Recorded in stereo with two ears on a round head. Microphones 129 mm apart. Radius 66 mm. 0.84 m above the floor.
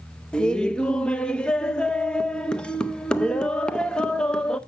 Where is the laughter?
5° left (ahead or behind), 0.5 m.